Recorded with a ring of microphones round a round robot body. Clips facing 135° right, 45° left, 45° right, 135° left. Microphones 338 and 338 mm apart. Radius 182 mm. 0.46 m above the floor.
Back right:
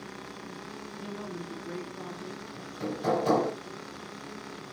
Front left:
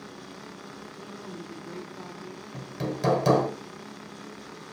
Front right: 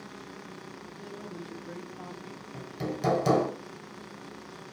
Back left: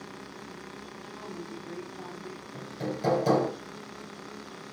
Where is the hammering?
20° left, 1.0 m.